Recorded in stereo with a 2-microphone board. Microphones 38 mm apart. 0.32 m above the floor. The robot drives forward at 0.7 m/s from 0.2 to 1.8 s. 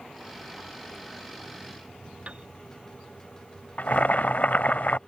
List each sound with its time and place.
2.3 s a piano: 35° right (ahead or behind)
3.8 s boiling: 50° left (ahead or behind)